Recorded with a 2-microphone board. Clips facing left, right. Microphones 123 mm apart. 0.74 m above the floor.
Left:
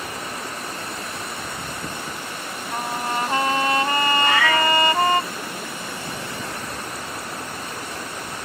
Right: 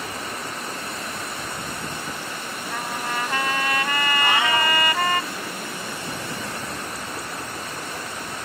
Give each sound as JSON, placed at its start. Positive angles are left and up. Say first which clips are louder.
{"t": 2.7, "sound": "a trumpet", "louder": "left 4 dB", "side_deg": 30}
{"t": 4.2, "sound": "a cat meowing", "louder": "even", "side_deg": -25}